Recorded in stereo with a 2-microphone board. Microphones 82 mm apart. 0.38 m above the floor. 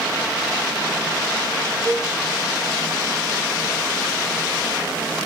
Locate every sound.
1.9 s a cowbell: 35° left (ahead or behind), 1.6 m